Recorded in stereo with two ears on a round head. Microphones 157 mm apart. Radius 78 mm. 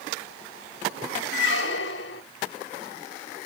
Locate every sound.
1.3 s a squeak: 70° left (ahead or behind), 1.8 m